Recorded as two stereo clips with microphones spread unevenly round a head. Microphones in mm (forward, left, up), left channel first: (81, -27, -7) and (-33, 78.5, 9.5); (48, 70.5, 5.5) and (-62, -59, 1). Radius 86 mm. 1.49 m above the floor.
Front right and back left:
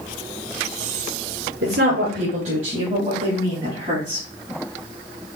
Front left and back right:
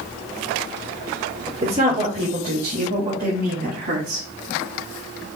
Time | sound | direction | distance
1.6 | a woman speaking | 170° left | 1.2 m